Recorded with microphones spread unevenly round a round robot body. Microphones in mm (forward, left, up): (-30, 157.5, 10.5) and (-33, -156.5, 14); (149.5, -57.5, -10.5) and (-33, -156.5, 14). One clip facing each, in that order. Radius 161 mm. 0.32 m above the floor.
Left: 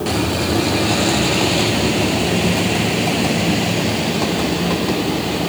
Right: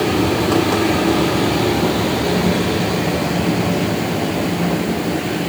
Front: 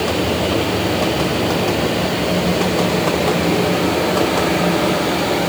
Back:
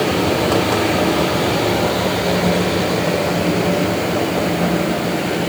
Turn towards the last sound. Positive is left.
No sound to turn to.